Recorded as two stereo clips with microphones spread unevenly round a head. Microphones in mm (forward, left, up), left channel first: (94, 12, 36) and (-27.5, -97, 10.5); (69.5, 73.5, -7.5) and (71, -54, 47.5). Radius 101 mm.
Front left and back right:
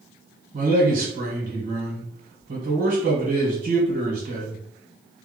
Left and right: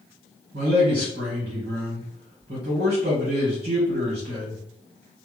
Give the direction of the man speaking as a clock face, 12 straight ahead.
4 o'clock.